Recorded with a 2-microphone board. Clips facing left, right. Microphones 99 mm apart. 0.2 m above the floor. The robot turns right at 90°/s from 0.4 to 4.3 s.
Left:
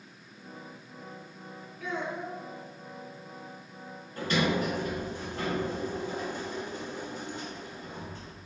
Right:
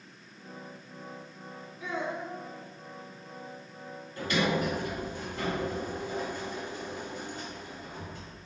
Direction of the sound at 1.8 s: 25° right.